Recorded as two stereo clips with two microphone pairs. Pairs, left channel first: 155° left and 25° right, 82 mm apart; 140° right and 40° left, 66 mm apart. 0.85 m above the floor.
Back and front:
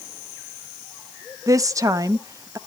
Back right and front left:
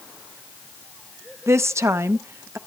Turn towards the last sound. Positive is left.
turn(degrees=5)